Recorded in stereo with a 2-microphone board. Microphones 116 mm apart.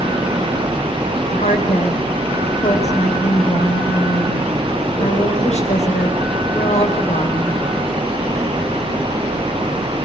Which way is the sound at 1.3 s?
80° left.